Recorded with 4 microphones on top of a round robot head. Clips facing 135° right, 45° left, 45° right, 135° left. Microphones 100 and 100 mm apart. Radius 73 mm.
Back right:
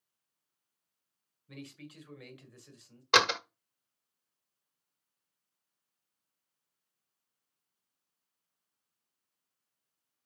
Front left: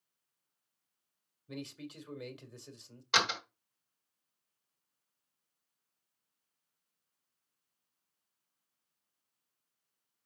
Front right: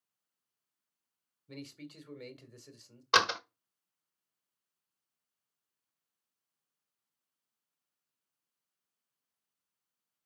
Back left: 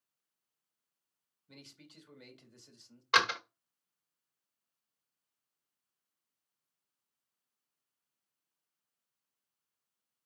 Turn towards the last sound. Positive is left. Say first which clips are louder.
# back right 6 dB, front right 1 dB
turn(degrees=-105)